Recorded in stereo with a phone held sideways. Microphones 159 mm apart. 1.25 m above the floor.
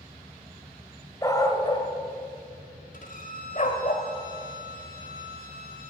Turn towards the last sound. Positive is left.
turn(degrees=60)  # may be behind; listen again after turning